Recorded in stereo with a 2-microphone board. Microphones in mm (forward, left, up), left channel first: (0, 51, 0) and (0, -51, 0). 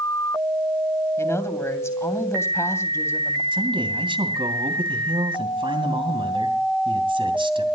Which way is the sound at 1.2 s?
30° left (ahead or behind).